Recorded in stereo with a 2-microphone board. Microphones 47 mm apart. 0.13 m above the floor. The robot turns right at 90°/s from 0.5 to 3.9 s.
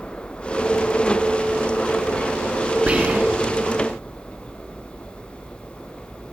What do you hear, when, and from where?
2.9 s whispering: 25° right (ahead or behind), 1.3 m; by 3.6 s 20° right (ahead or behind), 1.3 m